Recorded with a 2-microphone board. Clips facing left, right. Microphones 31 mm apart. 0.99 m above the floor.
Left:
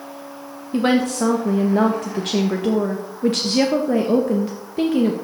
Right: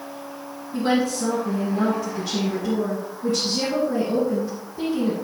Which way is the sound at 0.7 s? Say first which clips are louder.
Left 3 dB; 60° left (ahead or behind).